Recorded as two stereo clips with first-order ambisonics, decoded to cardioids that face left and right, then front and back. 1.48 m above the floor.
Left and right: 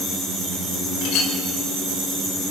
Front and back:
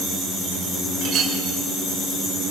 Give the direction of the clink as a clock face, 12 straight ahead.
8 o'clock.